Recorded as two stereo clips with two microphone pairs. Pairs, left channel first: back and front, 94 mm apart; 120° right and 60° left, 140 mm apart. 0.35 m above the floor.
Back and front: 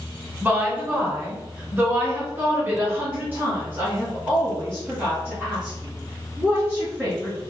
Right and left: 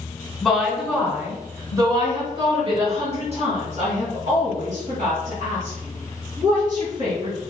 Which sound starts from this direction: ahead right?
A woman speaking, at 0.4 s.